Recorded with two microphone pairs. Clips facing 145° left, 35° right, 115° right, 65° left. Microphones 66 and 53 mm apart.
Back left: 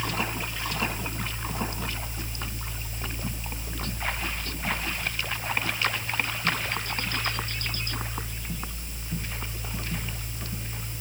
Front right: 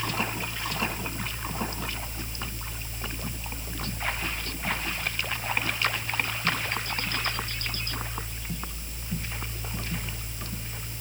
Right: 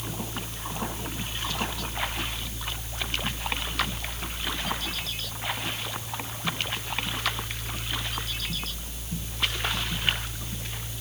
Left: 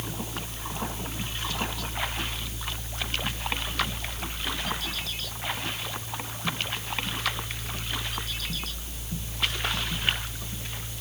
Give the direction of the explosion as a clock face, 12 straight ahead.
No explosion in this recording.